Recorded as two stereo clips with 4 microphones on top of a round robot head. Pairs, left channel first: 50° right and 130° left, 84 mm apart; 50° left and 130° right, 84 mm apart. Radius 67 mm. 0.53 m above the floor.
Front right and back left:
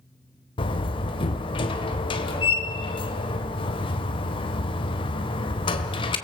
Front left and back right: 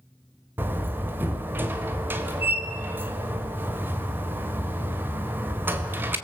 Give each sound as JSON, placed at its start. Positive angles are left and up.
{"t": 0.6, "sound": "a door slam", "azimuth_deg": -65, "distance_m": 1.9}